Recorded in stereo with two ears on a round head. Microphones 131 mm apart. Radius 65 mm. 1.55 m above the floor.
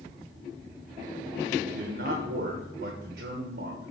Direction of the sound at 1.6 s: 70° right (ahead or behind).